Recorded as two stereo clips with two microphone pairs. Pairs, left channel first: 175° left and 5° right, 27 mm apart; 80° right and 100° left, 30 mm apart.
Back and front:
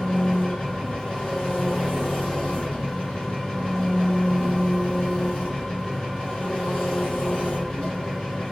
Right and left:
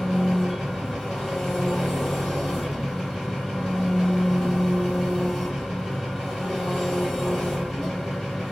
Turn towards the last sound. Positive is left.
turn(degrees=-160)